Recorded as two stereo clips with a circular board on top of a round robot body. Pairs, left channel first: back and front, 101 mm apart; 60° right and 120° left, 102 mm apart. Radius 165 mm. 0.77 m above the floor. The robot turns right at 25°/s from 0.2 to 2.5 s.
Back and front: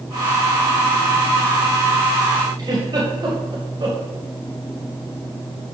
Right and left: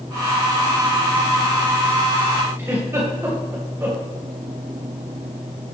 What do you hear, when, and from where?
2.6 s a giggle: 50° left, 2 m